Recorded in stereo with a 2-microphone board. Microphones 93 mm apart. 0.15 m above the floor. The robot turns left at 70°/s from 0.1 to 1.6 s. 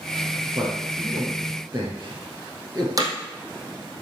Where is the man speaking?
50° right (ahead or behind), 3 m; by 2.9 s 30° right (ahead or behind), 3 m.